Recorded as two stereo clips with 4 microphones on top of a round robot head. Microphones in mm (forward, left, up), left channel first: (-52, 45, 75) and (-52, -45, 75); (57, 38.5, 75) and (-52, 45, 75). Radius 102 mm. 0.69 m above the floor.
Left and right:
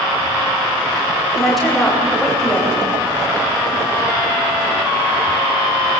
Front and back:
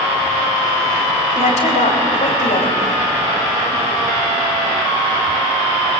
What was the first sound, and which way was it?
A woman speaking, straight ahead.